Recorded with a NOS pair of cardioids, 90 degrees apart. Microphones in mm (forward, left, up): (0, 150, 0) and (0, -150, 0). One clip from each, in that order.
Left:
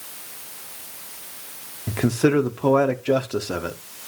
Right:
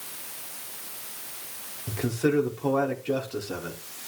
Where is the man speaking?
45° left, 1.0 m.